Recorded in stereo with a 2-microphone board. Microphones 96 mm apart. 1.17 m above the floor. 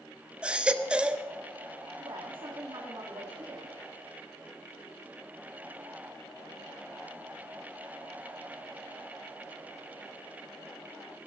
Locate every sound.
0.4 s a baby crying: 10° right (ahead or behind), 0.7 m
2.0 s a woman speaking: 55° right (ahead or behind), 1.9 m